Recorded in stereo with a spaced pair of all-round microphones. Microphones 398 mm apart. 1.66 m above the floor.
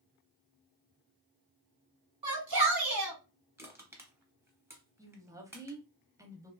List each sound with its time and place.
2.2 s a shout: 60° right (ahead or behind), 0.9 m
3.6 s crushing: 5° right (ahead or behind), 0.8 m
5.0 s a woman speaking: 10° right (ahead or behind), 0.7 m